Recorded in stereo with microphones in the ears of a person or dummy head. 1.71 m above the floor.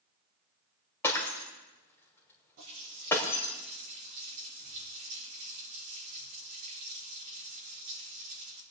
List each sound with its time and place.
1.0 s breaking glass: 20° left (ahead or behind), 2 m
2.6 s a running tap: 45° right (ahead or behind), 6 m